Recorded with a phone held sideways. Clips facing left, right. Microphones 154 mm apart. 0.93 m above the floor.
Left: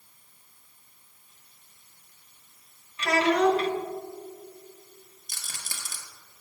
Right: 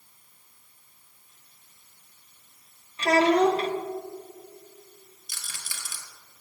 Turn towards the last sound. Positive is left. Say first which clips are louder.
# left 1 dB
turn(degrees=45)  # may be behind; listen again after turning